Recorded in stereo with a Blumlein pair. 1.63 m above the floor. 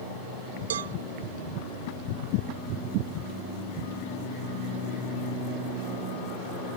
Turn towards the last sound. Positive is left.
turn(degrees=-60)